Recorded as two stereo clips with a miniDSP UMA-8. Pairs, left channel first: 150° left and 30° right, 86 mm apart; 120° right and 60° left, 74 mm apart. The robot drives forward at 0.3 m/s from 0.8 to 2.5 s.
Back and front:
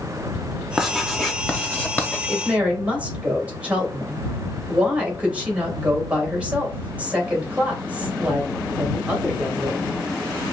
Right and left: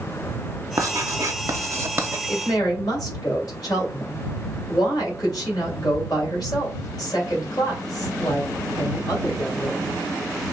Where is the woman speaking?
100° right, 2.5 m; by 9.9 s 105° right, 2.5 m.